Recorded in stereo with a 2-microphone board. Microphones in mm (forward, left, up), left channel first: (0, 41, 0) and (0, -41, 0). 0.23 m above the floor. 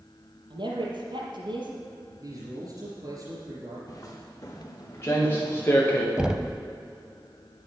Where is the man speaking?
50° right (ahead or behind), 4 m.